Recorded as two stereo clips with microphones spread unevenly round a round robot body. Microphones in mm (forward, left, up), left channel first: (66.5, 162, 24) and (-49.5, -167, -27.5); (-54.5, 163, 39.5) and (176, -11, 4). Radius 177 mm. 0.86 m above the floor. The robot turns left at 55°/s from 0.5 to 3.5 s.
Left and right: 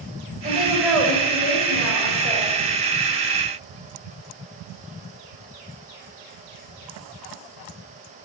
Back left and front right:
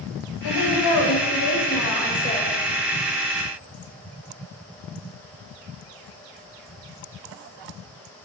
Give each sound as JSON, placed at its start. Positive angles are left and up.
{"t": 0.4, "sound": "a woman speaking", "azimuth_deg": 180, "distance_m": 4.5}